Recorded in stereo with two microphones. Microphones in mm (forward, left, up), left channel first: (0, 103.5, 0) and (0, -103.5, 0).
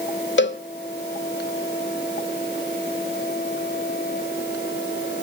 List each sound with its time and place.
0.4 s a cowbell: 65° left (ahead or behind), 0.9 m